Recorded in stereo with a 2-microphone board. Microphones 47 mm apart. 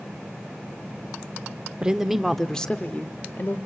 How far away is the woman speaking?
About 1.1 m.